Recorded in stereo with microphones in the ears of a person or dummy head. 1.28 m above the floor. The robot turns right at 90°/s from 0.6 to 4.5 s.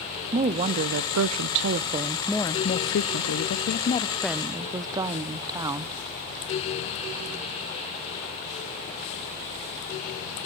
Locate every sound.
0.3 s a woman speaking: 150° right, 0.5 m; by 5.9 s 160° right, 0.5 m